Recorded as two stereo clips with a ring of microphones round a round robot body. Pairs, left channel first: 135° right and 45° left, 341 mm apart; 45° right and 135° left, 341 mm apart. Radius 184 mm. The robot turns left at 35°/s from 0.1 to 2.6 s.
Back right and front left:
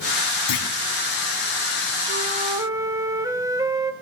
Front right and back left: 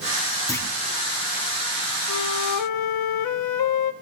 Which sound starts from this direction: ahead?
A flute, at 2.1 s.